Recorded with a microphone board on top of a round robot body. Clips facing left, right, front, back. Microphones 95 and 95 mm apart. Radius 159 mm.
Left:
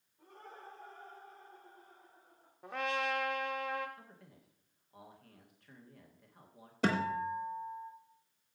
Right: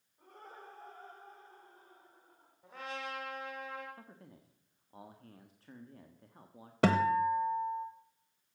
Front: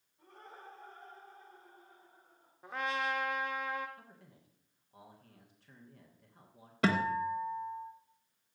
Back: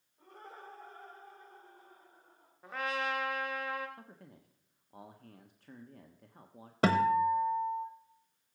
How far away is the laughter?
About 5 m.